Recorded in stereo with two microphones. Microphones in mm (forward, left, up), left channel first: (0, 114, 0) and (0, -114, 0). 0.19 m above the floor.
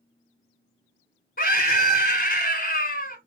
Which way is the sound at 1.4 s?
45° left (ahead or behind).